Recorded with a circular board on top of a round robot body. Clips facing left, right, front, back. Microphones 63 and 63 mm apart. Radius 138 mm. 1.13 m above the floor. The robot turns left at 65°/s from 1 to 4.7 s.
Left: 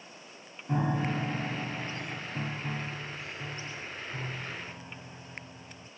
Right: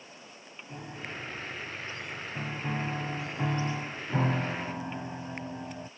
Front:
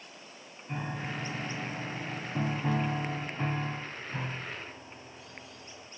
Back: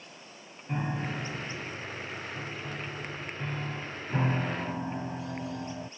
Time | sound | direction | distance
0.7 | a piano | 95° left | ?